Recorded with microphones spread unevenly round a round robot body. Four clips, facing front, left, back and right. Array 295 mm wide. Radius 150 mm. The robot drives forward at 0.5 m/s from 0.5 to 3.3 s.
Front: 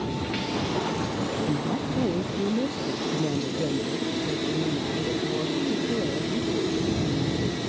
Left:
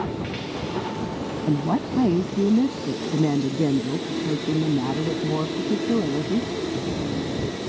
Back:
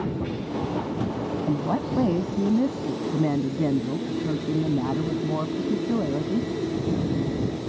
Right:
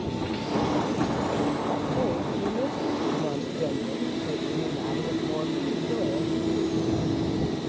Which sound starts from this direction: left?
A woman speaking, at 1.5 s.